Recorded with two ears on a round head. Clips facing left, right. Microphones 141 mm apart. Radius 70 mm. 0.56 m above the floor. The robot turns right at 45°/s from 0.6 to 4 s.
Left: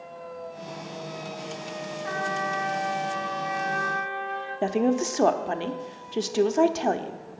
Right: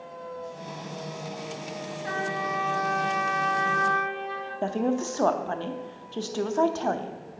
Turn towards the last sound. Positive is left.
turn(degrees=20)  # may be behind; listen again after turning